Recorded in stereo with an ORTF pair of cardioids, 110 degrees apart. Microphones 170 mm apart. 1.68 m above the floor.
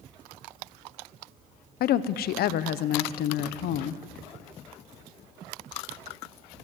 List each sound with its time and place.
1.8 s a woman speaking: 65° left, 0.9 m